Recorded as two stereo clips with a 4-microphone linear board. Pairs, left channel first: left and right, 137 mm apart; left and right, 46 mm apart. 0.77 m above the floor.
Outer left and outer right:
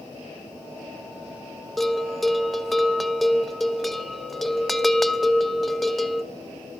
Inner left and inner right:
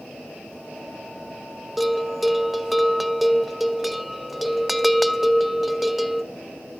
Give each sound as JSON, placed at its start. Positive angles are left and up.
{"t": 1.8, "sound": "a bell", "side_deg": 0, "distance_m": 0.7}